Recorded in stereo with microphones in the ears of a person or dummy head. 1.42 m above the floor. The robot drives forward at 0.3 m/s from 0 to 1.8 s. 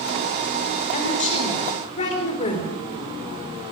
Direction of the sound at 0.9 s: 40° left (ahead or behind).